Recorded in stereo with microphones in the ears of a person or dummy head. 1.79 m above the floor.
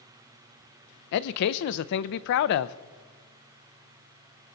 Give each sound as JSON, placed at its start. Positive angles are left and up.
{"t": 1.1, "sound": "a man speaking", "side_deg": 60, "distance_m": 0.5}